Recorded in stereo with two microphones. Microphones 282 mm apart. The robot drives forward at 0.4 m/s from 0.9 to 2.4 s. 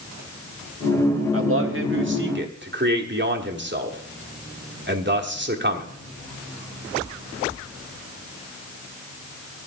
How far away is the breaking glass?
I don't hear breaking glass.